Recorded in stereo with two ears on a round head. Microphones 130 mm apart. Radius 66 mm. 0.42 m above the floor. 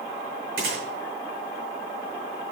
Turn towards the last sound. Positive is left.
turn(degrees=-80)